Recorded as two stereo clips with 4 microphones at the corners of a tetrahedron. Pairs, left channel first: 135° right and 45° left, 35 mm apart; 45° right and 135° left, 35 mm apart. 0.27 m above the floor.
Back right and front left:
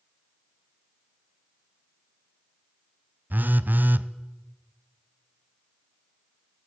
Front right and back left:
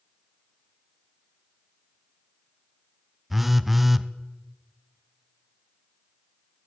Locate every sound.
3.3 s a phone buzzing: 50° left, 0.6 m